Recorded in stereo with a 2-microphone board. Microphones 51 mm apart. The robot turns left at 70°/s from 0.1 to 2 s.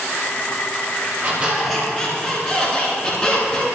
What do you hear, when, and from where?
1.2 s a squeak: 145° right, 3 m; by 3.6 s 160° left, 3 m